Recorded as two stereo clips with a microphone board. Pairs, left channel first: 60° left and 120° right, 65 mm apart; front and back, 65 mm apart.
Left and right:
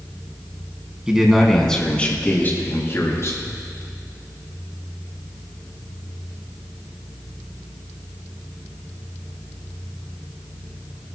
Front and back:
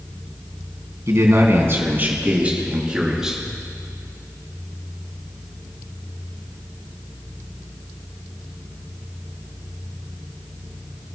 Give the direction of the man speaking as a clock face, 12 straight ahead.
7 o'clock.